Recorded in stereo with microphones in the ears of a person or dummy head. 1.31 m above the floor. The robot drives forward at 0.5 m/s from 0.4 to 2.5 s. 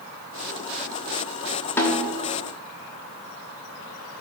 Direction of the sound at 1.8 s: 10° left (ahead or behind).